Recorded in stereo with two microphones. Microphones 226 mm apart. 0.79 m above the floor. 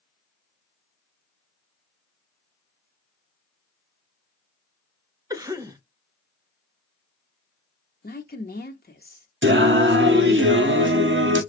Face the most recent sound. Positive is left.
turn(degrees=-55)  # may be behind; listen again after turning